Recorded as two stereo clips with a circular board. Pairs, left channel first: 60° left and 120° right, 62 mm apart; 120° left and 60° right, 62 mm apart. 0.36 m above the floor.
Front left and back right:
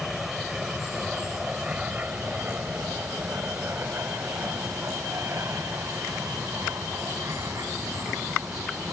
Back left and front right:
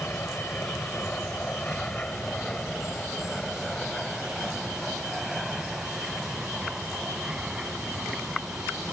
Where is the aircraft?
155° left; by 8.9 s 140° right.